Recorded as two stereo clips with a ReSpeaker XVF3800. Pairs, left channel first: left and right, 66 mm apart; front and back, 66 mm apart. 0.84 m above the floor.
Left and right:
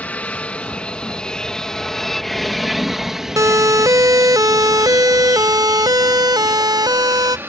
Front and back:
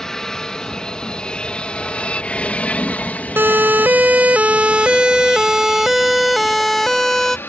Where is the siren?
125° right; by 7.4 s 85° right.